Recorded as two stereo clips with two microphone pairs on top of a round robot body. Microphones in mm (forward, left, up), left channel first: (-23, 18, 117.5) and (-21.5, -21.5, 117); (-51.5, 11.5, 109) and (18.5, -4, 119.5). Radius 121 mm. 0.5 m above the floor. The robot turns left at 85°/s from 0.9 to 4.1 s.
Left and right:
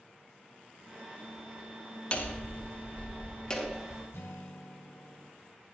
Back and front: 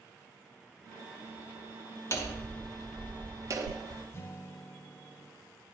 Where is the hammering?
140° left, 1.7 m; by 4.0 s 20° right, 1.7 m.